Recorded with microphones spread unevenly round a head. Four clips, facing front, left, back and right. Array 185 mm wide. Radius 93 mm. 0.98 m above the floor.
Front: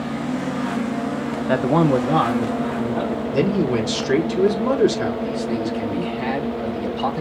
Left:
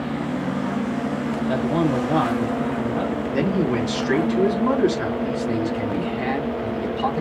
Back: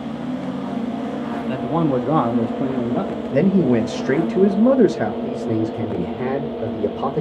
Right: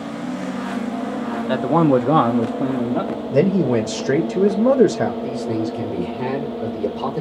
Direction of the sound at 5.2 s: 165° right.